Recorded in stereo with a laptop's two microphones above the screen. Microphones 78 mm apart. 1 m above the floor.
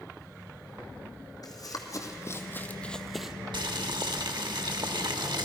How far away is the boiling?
About 1.2 m.